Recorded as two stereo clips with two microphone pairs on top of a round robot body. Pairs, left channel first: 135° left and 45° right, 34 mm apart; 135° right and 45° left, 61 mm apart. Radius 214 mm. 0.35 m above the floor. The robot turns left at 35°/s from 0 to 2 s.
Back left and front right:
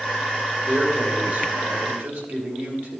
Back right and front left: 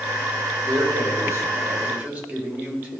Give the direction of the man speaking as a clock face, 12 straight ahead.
11 o'clock.